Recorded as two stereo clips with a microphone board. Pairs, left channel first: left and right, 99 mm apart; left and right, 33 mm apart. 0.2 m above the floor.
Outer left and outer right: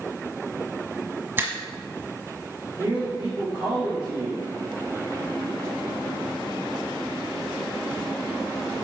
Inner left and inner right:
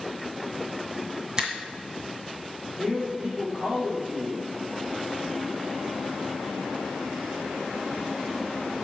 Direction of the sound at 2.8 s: 40° right (ahead or behind).